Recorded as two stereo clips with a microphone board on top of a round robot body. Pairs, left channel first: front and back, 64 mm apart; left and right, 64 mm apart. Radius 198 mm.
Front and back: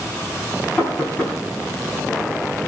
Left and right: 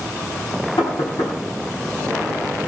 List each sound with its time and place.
0.8 s knocking: 70° left, 7 m